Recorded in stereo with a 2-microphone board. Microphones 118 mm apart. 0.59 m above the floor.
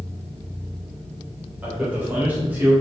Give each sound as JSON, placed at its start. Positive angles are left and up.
{"t": 1.6, "sound": "a man speaking", "side_deg": -15, "distance_m": 2.5}